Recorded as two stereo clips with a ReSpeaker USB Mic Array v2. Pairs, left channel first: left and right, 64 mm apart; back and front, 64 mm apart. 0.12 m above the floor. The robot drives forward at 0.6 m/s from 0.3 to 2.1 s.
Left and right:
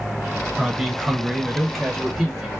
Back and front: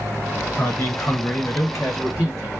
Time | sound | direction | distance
0.6 | a man speaking | 170° right | 1.4 m